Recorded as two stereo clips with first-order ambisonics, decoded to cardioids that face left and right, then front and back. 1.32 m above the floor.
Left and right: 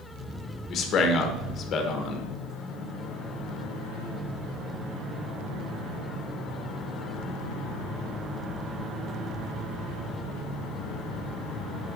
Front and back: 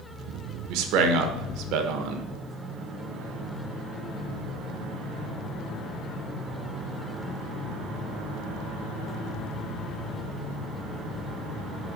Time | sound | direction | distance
0.7 | a man speaking | 150° left | 1.0 m